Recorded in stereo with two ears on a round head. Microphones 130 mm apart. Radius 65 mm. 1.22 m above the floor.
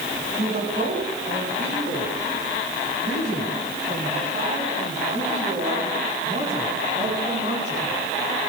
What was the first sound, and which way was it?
A woman speaking, 55° right (ahead or behind).